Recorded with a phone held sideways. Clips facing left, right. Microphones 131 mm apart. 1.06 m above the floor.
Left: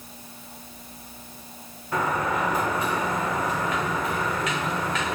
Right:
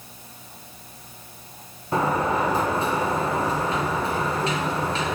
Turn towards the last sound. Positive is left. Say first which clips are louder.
# right 3 dB
turn(degrees=-30)  # may be behind; listen again after turning